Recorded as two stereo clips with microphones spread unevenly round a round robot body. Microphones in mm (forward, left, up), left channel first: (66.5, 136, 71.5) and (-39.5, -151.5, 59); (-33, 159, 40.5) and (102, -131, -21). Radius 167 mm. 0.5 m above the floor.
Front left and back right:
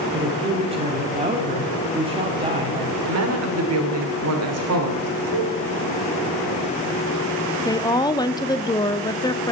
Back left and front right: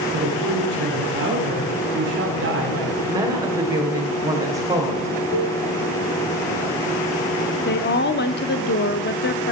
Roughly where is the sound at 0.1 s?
Ahead right.